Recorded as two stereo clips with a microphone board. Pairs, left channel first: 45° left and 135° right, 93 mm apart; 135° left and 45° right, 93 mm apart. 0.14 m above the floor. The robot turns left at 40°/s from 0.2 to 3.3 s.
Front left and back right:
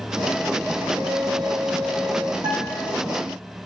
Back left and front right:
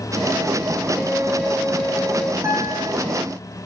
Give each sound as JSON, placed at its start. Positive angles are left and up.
{"t": 1.0, "sound": "a flute", "azimuth_deg": -105, "distance_m": 0.9}
{"t": 2.4, "sound": "a guitar", "azimuth_deg": -100, "distance_m": 5.5}